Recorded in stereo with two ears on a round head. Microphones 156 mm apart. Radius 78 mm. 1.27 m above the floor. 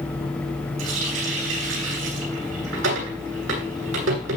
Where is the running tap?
85° right, 10 m.